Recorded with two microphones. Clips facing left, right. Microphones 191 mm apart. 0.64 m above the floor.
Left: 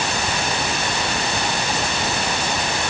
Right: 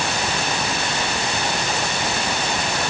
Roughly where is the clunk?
No clunk in this recording.